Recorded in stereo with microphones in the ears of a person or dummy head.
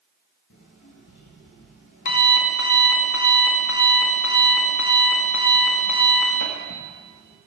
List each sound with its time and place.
0.5 s an alarm clock: 60° left (ahead or behind), 1.4 m